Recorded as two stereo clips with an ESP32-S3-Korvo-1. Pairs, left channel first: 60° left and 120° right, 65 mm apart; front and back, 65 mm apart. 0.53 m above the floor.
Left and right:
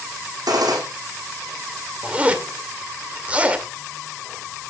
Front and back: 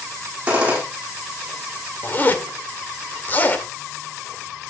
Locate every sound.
0.5 s a gunshot: 110° right, 6.5 m
2.0 s a zipper: 55° right, 2 m